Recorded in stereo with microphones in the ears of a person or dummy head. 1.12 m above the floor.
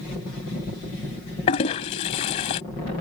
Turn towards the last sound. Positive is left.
turn(degrees=30)  # may be behind; listen again after turning